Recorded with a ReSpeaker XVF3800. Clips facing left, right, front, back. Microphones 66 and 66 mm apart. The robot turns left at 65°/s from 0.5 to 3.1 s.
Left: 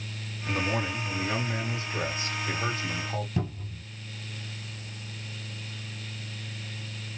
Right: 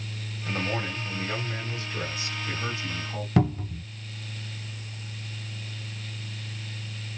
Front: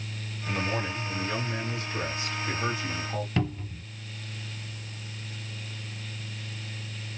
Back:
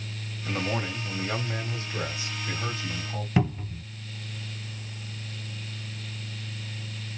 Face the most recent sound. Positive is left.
turn(degrees=-105)